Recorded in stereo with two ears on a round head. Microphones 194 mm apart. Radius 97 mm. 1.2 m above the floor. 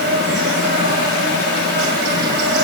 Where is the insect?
55° right (ahead or behind), 2.5 m.